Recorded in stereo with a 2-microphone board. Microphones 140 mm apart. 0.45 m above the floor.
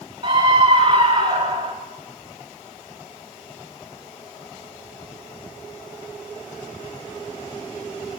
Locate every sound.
0.2 s a scream: 35° right (ahead or behind), 3 m